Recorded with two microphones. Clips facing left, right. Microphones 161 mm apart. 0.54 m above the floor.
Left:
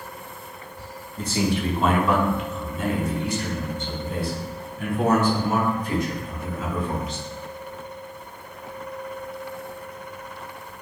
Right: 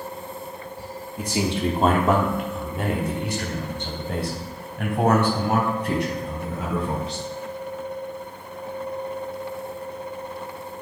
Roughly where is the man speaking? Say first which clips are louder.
Even; centre.